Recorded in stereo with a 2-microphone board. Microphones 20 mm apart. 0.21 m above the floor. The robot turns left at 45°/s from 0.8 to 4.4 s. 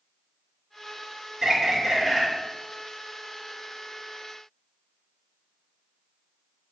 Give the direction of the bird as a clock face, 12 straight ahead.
5 o'clock.